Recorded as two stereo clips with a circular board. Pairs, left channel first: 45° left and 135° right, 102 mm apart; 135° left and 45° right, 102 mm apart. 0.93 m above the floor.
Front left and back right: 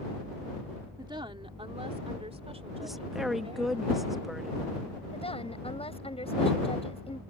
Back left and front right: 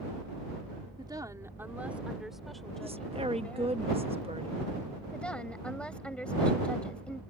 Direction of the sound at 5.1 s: 55° left.